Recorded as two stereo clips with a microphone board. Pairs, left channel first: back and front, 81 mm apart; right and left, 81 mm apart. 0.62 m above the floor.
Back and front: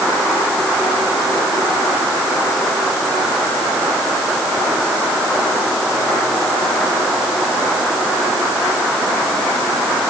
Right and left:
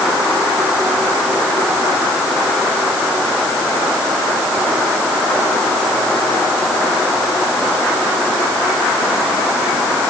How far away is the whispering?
No whispering in this recording.